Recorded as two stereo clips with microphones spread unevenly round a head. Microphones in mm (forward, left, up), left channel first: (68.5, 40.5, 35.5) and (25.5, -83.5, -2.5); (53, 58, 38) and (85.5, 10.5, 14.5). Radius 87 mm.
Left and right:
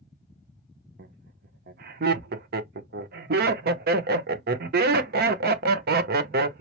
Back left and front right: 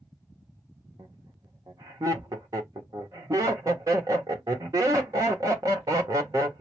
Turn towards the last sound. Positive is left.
turn(degrees=-110)